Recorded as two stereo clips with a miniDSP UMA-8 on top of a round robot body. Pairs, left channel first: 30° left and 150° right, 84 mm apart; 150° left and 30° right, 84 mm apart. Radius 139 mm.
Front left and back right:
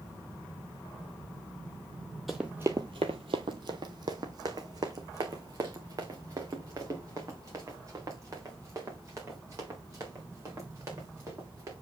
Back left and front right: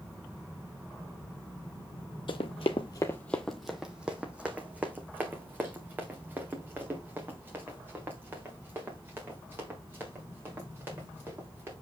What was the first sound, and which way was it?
Running footsteps, 120° left.